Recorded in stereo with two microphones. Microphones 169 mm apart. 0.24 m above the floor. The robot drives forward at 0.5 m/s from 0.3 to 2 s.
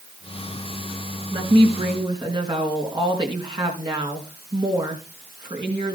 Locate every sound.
1.3 s a woman speaking: 30° right (ahead or behind), 3 m